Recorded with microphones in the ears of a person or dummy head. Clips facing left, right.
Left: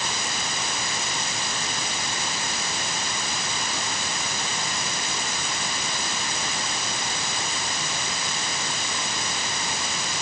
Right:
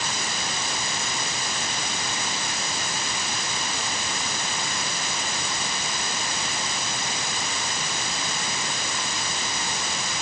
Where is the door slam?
No door slam in this recording.